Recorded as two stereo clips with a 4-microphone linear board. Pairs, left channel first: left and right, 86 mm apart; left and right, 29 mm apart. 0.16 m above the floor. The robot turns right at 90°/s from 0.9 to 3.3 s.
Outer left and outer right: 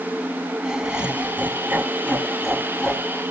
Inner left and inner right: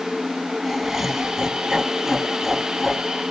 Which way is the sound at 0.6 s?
10° right (ahead or behind).